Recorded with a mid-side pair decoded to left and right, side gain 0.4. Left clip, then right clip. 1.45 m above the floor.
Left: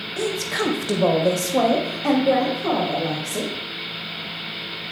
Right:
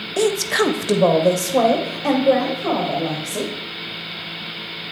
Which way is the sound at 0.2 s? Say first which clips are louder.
Right 6 dB; 70° right.